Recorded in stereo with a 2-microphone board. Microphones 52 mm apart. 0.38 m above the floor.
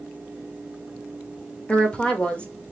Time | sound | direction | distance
1.7 | a woman speaking | 20° left (ahead or behind) | 0.9 m